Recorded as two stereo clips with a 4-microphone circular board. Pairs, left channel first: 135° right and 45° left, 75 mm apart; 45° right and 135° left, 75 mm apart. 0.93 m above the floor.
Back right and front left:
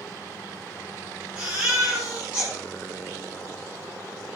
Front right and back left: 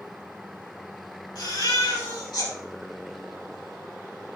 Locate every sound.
1.4 s a baby crying: 30° right, 6.5 m